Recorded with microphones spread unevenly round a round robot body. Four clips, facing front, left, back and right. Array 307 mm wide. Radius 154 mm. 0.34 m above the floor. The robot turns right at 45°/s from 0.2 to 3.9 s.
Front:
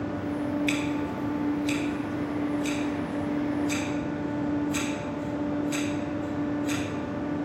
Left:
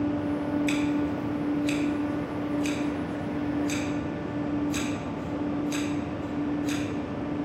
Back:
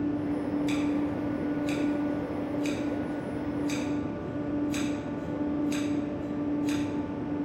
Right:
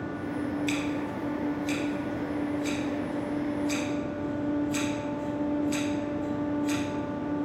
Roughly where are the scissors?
Ahead.